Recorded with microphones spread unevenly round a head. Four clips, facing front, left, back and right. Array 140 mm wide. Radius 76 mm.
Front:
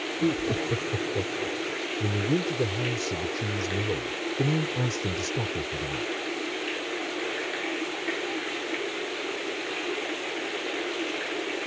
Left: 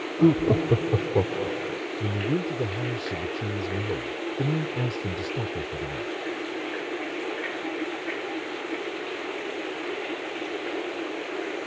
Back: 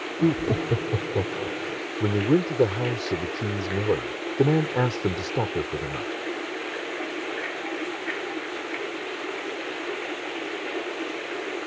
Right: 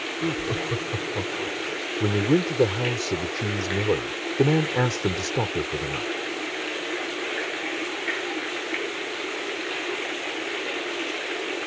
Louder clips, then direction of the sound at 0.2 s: Left 9 dB, back 4 dB; 110° left.